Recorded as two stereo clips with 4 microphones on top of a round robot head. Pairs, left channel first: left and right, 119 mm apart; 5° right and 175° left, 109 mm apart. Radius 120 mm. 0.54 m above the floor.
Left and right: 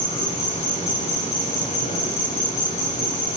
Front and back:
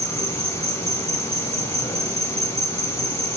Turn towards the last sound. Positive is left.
turn(degrees=60)